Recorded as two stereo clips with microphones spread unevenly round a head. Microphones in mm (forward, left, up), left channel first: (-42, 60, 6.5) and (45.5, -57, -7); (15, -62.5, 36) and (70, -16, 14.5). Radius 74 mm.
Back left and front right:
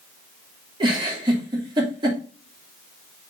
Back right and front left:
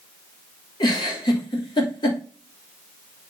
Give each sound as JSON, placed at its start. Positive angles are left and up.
{"t": 0.8, "sound": "a giggle", "azimuth_deg": -115, "distance_m": 3.0}